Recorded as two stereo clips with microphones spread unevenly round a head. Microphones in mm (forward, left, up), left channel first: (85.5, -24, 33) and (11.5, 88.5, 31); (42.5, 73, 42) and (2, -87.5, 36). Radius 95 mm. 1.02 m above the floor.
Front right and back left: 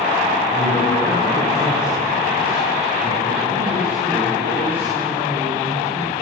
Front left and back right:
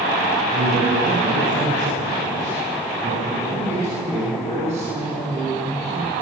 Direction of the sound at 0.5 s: 150° right.